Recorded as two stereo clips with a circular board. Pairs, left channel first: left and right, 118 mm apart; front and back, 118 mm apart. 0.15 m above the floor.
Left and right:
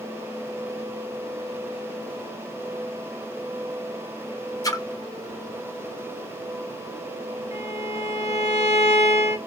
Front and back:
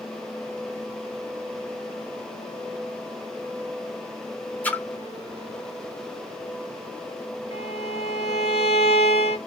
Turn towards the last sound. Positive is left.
turn(degrees=-30)